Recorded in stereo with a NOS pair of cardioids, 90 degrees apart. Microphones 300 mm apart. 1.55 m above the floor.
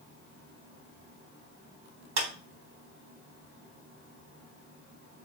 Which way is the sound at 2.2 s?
60° right.